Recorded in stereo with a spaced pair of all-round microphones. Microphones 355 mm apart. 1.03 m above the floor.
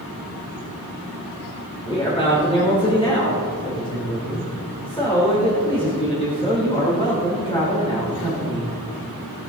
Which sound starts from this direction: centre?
A man speaking, at 1.9 s.